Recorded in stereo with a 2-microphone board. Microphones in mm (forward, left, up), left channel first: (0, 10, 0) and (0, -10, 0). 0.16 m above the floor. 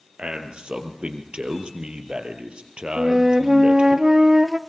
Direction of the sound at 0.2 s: 50° right (ahead or behind).